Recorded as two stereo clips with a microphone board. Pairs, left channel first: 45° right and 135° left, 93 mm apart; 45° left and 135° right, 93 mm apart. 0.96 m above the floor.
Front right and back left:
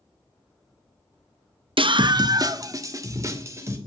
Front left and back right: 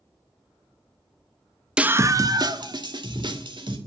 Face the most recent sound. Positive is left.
turn(degrees=-165)